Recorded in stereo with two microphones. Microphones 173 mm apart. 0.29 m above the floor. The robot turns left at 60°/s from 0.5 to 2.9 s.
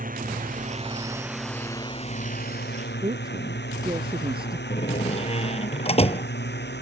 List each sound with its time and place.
0.0 s a drone: 55° right (ahead or behind); by 6.8 s 85° left
3.0 s a woman speaking: 30° right (ahead or behind)
4.7 s a door slam: 35° left (ahead or behind)